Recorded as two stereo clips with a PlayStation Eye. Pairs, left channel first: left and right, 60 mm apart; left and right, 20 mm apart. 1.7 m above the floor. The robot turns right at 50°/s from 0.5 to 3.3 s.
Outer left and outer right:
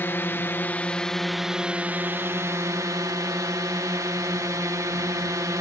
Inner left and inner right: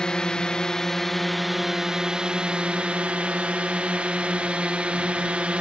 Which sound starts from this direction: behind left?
A drone, at 0.0 s.